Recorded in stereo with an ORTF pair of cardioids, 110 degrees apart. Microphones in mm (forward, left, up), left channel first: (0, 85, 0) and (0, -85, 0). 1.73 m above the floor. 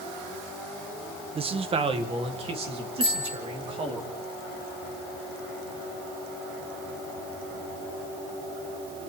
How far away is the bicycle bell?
About 4 m.